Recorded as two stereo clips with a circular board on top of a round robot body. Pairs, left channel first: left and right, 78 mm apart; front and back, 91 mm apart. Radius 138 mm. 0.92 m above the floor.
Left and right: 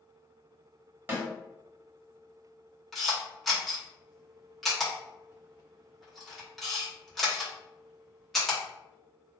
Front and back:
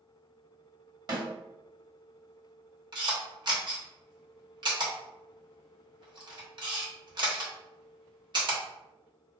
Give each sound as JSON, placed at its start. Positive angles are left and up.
{"t": 1.1, "sound": "a snare drum", "azimuth_deg": -155, "distance_m": 1.6}
{"t": 2.9, "sound": "a camera shutter", "azimuth_deg": 180, "distance_m": 1.3}